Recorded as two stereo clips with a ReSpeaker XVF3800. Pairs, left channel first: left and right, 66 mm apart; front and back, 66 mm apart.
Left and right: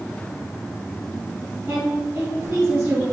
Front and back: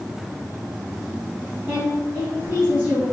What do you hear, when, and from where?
1.7 s a woman speaking: 130° right, 1.9 m